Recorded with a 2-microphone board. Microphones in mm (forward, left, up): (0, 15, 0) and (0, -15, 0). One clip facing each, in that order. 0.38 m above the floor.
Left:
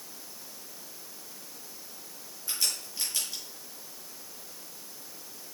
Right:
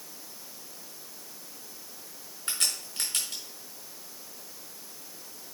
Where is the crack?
60° right (ahead or behind), 4.5 m.